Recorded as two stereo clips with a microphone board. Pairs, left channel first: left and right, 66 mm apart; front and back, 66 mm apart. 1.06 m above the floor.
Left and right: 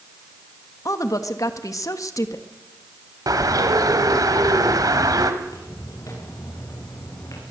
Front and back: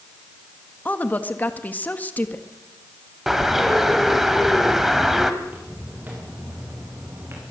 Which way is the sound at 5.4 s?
115° left.